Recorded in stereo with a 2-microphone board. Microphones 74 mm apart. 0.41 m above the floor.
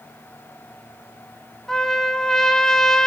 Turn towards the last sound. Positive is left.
turn(degrees=5)  # may be behind; listen again after turning